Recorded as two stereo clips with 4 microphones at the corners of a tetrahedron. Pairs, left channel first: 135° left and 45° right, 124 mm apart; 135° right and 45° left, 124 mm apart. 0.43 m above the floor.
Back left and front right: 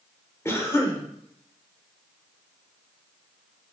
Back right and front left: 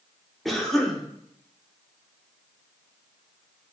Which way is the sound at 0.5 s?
140° left.